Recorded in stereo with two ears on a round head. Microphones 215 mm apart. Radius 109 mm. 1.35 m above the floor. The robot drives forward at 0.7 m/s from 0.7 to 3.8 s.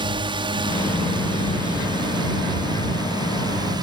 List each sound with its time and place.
0.0 s a drone: 20° right (ahead or behind)